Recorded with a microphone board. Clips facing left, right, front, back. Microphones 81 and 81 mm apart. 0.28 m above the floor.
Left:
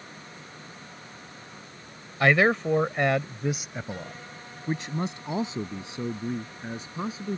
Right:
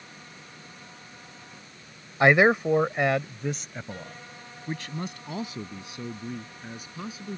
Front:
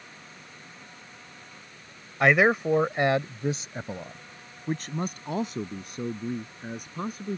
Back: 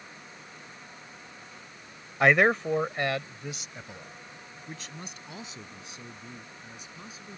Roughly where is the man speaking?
Right.